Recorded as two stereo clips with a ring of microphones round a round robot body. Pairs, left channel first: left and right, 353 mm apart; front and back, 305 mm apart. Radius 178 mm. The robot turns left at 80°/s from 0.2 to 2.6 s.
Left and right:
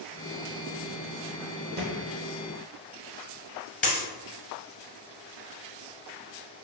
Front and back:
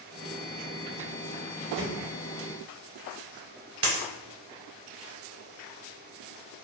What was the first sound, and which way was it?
A thud, 150° right.